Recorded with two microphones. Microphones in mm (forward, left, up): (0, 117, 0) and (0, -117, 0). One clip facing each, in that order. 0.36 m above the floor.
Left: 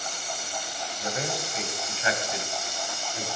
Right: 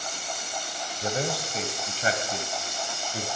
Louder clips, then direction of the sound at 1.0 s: Right 3 dB; 30° right (ahead or behind).